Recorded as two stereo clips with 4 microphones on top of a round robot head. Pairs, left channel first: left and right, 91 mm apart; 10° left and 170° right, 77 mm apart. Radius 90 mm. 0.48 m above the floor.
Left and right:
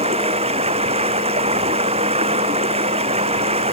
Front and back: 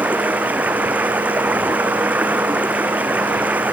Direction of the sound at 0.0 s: 95° right.